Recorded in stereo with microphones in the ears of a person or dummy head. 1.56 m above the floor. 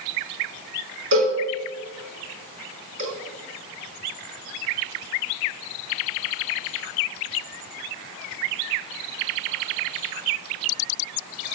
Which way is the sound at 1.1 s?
70° right (ahead or behind).